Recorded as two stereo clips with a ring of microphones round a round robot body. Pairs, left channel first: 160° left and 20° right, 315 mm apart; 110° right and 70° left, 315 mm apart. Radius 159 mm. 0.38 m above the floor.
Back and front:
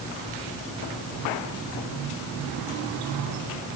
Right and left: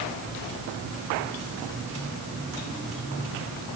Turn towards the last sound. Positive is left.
No sound to turn to.